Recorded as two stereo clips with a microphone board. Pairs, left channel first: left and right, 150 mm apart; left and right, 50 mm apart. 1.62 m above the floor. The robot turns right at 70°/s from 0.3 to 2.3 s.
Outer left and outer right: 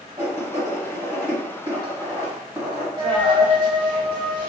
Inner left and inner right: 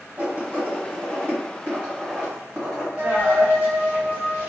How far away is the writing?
About 1.5 m.